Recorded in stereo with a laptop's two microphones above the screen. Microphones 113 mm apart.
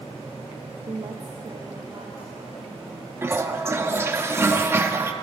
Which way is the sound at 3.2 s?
20° right (ahead or behind).